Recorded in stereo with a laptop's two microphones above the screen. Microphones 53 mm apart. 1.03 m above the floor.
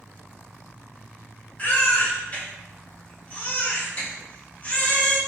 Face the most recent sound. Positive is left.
turn(degrees=30)  # may be behind; listen again after turning